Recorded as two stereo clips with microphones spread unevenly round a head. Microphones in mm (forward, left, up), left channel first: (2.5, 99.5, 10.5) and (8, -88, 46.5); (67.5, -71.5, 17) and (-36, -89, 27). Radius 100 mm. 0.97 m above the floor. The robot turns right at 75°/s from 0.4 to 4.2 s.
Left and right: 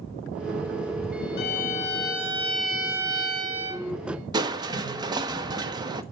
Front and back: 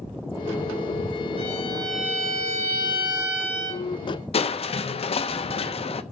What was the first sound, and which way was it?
A violin, 130° left.